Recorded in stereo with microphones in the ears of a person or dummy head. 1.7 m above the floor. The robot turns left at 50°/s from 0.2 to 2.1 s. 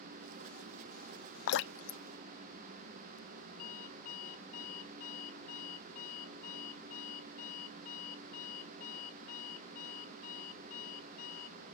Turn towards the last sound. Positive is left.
turn(degrees=45)  # may be behind; listen again after turning